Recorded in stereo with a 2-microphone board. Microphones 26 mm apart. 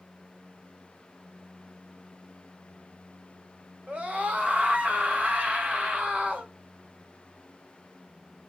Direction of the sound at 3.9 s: 55° right (ahead or behind).